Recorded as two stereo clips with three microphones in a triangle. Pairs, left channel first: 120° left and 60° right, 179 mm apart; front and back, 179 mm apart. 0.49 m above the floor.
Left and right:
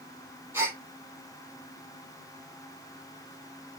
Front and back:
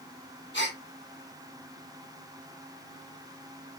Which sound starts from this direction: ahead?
A gasp, at 0.5 s.